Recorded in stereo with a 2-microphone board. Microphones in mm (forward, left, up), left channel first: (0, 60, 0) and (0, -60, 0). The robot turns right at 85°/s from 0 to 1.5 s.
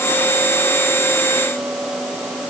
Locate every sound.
Only background noise.